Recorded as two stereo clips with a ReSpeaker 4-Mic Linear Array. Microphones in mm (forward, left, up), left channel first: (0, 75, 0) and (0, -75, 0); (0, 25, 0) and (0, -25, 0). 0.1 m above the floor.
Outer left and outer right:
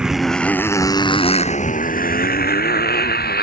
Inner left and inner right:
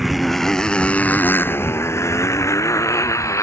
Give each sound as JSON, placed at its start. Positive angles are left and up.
{"t": 0.0, "sound": "a motorcycle", "side_deg": -5}